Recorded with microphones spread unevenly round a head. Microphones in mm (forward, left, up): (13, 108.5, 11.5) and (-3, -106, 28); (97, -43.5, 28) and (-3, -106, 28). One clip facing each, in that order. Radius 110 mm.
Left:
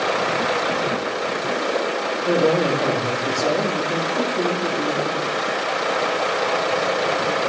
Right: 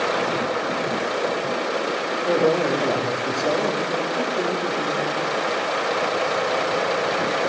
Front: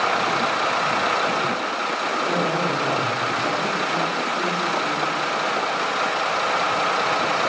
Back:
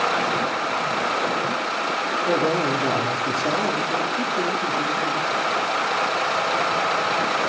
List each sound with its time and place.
2.3 s a man speaking: 155° left, 3.5 m